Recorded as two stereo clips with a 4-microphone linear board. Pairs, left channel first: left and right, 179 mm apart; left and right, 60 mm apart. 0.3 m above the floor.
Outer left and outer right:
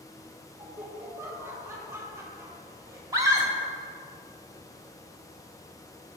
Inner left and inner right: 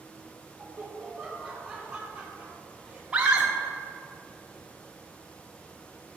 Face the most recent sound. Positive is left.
turn(degrees=-20)  # may be behind; listen again after turning